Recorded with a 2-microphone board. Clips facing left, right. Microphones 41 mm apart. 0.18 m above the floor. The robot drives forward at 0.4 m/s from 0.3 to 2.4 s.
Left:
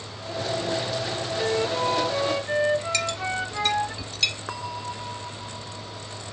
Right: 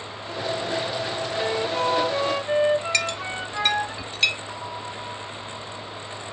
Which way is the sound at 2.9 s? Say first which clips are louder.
Right 1 dB; 35° right (ahead or behind).